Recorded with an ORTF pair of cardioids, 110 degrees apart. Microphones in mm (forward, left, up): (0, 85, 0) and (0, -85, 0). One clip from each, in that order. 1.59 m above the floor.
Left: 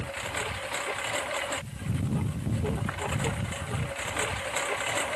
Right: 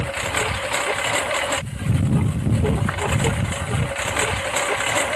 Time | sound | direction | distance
0.0 | a lawn mower | 60° right | ?